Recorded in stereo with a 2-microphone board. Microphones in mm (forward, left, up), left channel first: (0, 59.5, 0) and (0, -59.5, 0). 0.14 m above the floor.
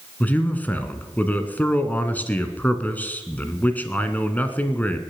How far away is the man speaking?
About 1.4 m.